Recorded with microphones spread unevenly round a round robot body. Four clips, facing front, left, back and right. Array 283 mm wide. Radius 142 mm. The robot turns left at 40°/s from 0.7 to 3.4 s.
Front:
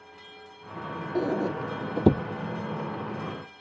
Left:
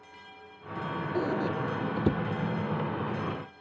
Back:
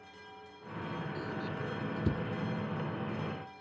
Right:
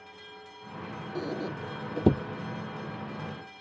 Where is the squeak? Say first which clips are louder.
Left 4 dB, front 11 dB; 15° left; by 2.2 s 30° right.